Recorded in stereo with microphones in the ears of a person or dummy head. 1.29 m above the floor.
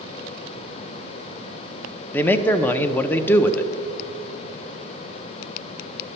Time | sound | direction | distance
2.1 | a man speaking | 10° left (ahead or behind) | 0.6 m